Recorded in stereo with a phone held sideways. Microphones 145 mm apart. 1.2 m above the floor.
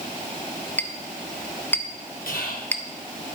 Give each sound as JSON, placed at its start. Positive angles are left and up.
{"t": 0.8, "sound": "a clink", "side_deg": 10, "distance_m": 0.6}
{"t": 2.3, "sound": "whispering", "side_deg": 75, "distance_m": 1.5}